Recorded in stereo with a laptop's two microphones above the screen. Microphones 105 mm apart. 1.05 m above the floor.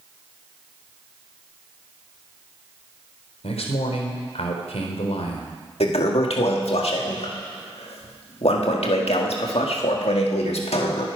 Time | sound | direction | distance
3.4 | a man speaking | 85° left | 3.5 m
5.8 | a toilet flushing | 75° left (ahead or behind) | 1.8 m